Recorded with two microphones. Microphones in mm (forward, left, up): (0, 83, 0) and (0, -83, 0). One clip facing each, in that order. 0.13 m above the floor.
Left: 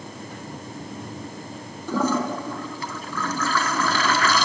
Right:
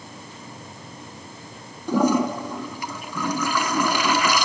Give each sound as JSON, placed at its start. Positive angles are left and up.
{"t": 1.9, "sound": "a toilet flushing", "side_deg": -15, "distance_m": 1.3}